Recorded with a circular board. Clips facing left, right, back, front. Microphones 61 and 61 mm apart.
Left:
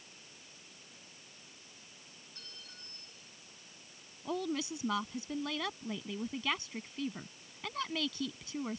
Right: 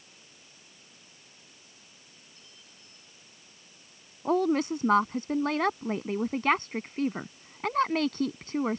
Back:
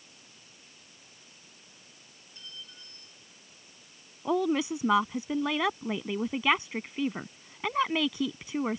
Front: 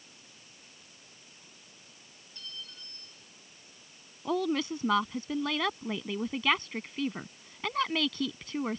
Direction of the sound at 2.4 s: 105° left.